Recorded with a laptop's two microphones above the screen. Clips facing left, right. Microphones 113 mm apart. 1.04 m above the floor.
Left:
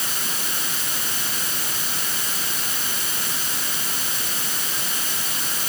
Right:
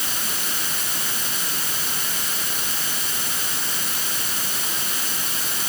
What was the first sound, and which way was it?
Only background noise.